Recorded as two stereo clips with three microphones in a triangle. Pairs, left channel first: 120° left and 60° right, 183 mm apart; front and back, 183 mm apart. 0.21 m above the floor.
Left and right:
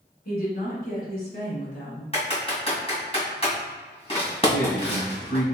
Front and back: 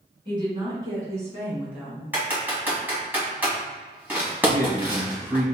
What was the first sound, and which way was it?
A woman speaking, 125° left.